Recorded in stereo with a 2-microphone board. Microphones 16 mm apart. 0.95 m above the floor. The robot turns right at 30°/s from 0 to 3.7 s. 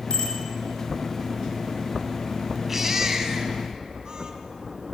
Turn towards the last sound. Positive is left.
turn(degrees=-135)